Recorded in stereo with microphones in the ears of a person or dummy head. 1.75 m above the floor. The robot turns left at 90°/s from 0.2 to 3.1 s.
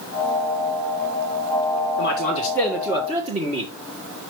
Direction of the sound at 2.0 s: 70° left.